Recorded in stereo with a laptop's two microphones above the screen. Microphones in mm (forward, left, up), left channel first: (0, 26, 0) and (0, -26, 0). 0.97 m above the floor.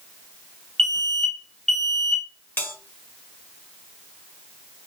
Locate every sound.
0.8 s an alarm: 10° left (ahead or behind), 1.0 m
2.6 s a bell: 40° left (ahead or behind), 1.6 m